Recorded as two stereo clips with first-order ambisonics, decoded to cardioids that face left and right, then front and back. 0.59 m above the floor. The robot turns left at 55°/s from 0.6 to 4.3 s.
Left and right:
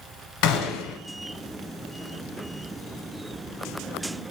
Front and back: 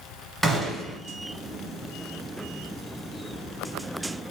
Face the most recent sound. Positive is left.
turn(degrees=-105)